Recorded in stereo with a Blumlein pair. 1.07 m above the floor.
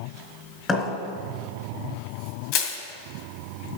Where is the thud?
20° left, 3.5 m.